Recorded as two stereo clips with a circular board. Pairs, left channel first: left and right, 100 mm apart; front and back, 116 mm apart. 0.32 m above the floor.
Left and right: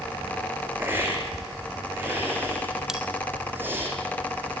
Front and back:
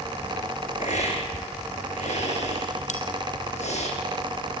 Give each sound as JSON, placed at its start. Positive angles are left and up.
{"t": 0.8, "sound": "a hiss", "azimuth_deg": -20, "distance_m": 5.0}
{"t": 2.9, "sound": "a bell", "azimuth_deg": -5, "distance_m": 2.5}